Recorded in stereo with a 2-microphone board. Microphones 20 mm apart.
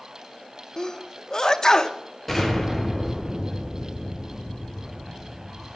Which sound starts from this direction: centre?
An explosion, at 2.3 s.